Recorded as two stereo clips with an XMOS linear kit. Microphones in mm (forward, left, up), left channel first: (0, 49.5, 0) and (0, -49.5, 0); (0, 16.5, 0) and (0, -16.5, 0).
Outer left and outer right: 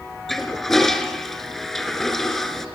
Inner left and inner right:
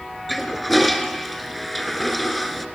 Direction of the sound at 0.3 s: 5° left (ahead or behind).